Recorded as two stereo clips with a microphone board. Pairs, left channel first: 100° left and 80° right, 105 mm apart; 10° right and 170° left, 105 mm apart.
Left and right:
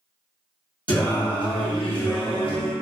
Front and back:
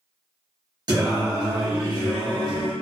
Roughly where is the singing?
Behind left.